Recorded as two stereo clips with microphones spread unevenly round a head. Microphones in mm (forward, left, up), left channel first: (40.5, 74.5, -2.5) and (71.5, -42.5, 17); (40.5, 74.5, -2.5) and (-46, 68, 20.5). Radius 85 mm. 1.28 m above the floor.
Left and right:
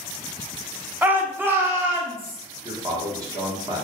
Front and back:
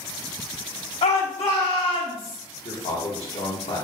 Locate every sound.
1.0 s a shout: straight ahead, 0.8 m; by 2.4 s 5° right, 2.5 m
2.6 s a man speaking: 15° right, 1.3 m